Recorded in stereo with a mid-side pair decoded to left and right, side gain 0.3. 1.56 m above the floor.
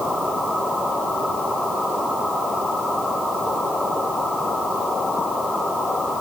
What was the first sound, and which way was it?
Only background noise.